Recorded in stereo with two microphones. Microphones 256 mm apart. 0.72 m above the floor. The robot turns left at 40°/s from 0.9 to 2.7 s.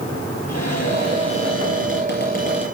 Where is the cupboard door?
90° left, 6 m; by 2.6 s 20° left, 6 m.